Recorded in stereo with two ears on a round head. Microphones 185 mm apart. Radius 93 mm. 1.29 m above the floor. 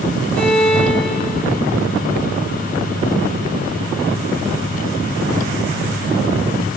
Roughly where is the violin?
Centre.